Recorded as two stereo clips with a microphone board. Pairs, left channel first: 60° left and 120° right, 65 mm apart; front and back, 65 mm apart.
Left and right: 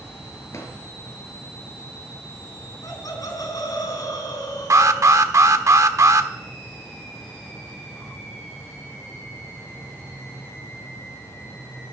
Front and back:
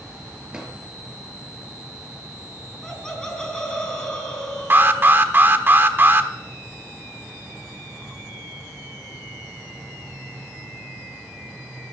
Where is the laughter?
80° left, 4.5 m.